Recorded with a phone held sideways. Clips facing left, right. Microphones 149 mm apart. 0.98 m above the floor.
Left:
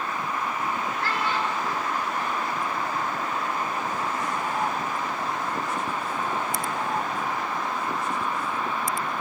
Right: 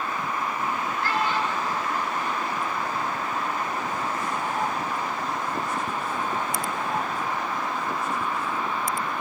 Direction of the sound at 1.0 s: 75° left (ahead or behind).